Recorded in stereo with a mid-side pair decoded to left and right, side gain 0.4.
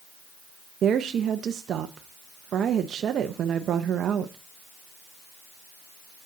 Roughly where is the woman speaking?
Ahead right.